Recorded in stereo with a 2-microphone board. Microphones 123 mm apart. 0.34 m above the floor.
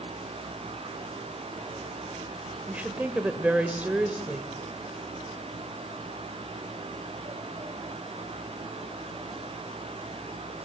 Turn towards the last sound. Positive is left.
turn(degrees=-10)  # may be behind; listen again after turning